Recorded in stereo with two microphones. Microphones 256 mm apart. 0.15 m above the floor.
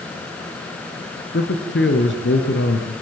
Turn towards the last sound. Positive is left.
turn(degrees=50)  # may be behind; listen again after turning